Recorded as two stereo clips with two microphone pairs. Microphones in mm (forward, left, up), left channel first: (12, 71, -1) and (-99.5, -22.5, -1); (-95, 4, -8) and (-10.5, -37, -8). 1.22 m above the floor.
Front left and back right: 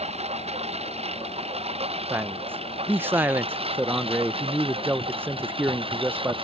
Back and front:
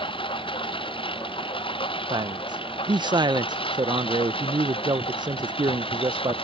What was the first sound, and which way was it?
A lawn mower, 175° left.